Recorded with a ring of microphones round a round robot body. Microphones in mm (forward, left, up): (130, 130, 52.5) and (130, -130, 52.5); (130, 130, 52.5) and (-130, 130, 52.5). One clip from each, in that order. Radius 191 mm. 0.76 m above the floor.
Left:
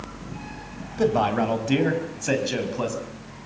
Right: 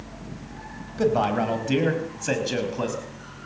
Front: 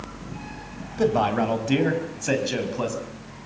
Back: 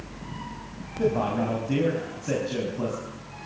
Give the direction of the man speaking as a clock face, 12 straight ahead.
12 o'clock.